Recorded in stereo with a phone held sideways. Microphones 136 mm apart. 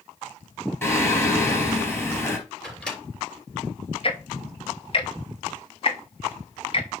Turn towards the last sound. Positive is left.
turn(degrees=40)  # may be behind; listen again after turning